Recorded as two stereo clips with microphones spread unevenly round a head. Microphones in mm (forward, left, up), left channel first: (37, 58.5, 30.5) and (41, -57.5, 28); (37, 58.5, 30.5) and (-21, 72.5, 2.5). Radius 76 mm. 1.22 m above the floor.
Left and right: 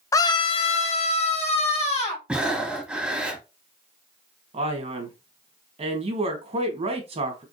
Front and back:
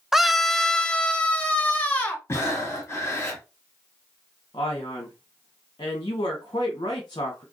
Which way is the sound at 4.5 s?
50° right.